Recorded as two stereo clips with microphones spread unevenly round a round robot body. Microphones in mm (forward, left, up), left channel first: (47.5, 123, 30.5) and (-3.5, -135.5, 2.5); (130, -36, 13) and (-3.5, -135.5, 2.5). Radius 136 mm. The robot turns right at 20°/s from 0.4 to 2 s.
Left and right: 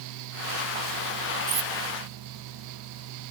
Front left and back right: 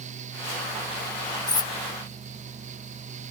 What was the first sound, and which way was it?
Cutlery clinking, 35° right.